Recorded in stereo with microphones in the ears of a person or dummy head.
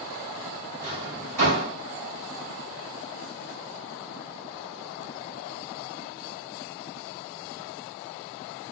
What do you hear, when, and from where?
0.8 s a drawer: 50° right (ahead or behind), 2.5 m